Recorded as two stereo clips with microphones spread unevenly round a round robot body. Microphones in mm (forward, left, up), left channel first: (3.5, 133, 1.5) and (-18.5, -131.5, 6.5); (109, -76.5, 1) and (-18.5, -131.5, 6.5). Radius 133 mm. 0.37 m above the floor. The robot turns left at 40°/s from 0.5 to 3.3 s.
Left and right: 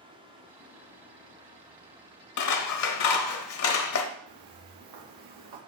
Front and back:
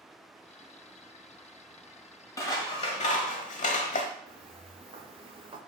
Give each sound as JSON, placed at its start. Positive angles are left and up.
{"t": 2.4, "sound": "scissors", "azimuth_deg": 95, "distance_m": 1.0}
{"t": 4.3, "sound": "footsteps", "azimuth_deg": -115, "distance_m": 3.0}